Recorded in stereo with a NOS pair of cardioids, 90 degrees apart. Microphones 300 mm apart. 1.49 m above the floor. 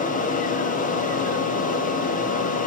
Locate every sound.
0.0 s a fan: 25° left, 0.9 m